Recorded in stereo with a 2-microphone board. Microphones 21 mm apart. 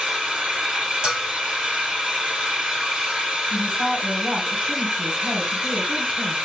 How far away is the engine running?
About 3 m.